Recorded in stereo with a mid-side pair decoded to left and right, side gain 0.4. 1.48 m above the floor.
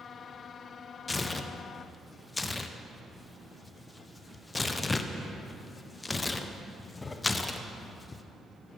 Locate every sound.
1.1 s tearing paper: 25° left, 0.6 m